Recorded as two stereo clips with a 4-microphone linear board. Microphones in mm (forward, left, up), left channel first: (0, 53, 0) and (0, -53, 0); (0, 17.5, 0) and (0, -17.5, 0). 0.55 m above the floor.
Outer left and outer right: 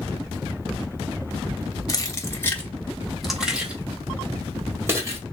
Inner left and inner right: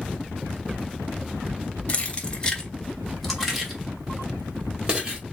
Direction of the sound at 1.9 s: 35° left (ahead or behind).